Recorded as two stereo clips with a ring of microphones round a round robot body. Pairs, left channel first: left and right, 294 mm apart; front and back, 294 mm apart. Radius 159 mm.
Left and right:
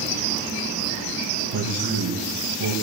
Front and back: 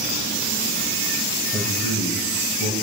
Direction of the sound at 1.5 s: 70° right.